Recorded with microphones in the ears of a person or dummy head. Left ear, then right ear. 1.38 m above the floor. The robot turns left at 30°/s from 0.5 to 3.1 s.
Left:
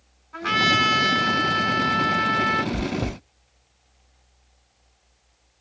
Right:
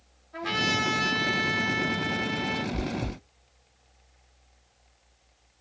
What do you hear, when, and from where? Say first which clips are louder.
0.3 s a trumpet: left 7 dB; 105° left, 2.5 m; by 2.6 s 40° left, 2.5 m
2.7 s chewing: left 5 dB; 40° left (ahead or behind), 0.6 m; by 3.2 s 50° left (ahead or behind), 0.6 m